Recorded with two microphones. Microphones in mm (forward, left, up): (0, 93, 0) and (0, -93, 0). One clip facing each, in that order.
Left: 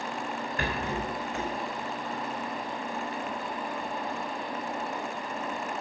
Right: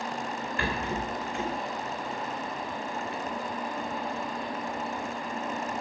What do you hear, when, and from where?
0.6 s a rattle: 45° left (ahead or behind), 4.5 m